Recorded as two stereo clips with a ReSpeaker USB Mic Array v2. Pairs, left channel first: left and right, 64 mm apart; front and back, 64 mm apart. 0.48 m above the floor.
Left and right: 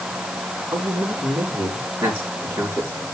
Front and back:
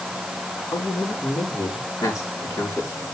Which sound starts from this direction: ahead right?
A man speaking, at 0.7 s.